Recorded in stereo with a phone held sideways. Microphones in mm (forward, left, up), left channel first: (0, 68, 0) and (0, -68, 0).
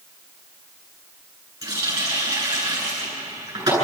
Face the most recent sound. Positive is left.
turn(degrees=-25)  # may be behind; listen again after turning